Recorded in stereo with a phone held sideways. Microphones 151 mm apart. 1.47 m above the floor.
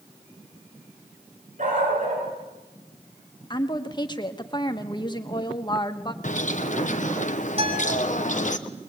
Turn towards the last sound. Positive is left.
turn(degrees=-45)  # may be behind; listen again after turning